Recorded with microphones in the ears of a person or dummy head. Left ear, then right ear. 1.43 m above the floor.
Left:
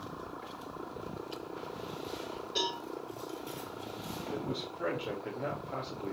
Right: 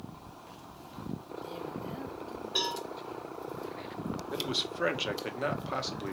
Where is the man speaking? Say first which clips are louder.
Right 7 dB; 50° right (ahead or behind), 1.4 m.